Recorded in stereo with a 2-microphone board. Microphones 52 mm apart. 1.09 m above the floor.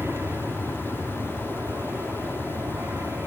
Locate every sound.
0.0 s an aircraft: 55° right (ahead or behind)